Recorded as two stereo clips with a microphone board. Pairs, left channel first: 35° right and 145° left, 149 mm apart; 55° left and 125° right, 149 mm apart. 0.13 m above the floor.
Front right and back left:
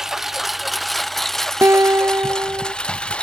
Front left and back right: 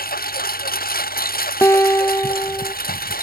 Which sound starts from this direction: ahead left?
A lawn mower, at 0.0 s.